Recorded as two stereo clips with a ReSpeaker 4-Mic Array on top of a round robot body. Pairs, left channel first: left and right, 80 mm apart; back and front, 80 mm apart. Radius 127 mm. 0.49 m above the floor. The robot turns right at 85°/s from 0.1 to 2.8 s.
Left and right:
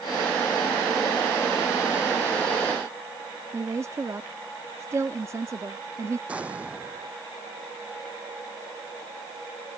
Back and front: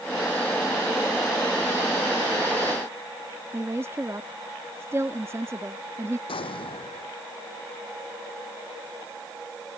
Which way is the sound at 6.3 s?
165° right.